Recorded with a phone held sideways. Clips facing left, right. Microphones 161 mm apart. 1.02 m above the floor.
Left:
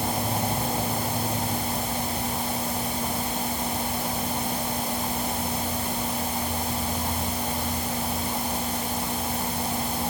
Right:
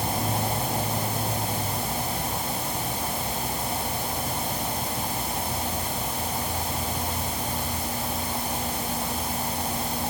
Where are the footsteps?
I don't hear footsteps.